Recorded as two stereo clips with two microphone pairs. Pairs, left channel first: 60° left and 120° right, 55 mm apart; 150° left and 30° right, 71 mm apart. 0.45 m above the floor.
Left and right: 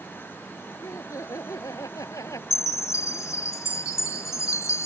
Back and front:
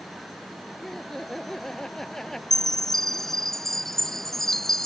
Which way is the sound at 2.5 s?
65° left.